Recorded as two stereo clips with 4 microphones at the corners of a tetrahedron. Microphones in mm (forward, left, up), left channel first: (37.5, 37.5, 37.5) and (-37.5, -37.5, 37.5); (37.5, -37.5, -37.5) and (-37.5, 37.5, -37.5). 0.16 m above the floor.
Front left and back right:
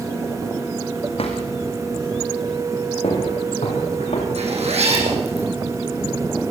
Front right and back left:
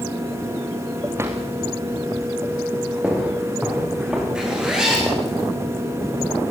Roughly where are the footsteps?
Ahead left.